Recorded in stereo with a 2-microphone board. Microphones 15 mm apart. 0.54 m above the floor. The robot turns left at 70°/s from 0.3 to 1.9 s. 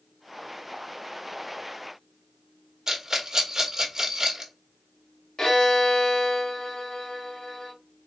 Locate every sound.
2.9 s a rattle: 35° right (ahead or behind), 1.2 m
5.4 s a violin: 55° left (ahead or behind), 2 m